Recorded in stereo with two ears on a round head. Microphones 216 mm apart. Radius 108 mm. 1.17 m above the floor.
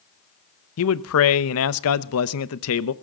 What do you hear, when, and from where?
0.8 s a man speaking: 65° left (ahead or behind), 0.9 m